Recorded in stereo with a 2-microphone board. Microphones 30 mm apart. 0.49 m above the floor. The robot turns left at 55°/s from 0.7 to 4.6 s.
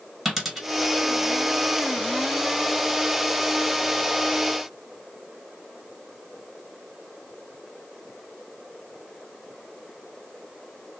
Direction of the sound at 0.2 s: 5° right (ahead or behind).